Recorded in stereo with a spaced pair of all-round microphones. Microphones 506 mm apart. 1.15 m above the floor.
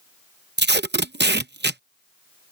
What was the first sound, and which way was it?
Tape being pulled, 20° right (ahead or behind).